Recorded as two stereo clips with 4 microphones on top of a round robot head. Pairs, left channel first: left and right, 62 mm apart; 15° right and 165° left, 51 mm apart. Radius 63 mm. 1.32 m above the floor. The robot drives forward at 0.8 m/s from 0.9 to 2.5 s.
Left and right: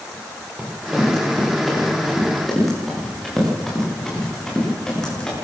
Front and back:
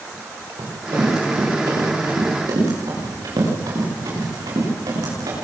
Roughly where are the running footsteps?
Behind.